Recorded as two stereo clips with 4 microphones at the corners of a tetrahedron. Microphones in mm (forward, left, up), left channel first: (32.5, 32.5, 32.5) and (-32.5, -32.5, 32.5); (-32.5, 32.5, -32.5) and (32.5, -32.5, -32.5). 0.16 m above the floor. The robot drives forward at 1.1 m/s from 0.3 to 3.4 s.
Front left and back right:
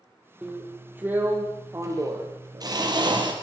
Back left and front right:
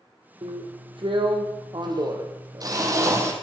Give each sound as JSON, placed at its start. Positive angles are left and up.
{"t": 0.4, "sound": "a drill", "azimuth_deg": -60, "distance_m": 4.5}